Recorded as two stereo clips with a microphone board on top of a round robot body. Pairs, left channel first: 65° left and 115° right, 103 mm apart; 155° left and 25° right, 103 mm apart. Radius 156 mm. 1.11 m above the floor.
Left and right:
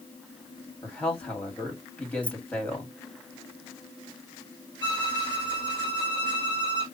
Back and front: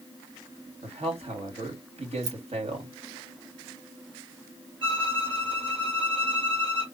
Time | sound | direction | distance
0.8 | a man speaking | 10° right | 2.5 m
2.2 | keys jangling | 10° right | 0.7 m
4.8 | a violin | 20° left | 1.6 m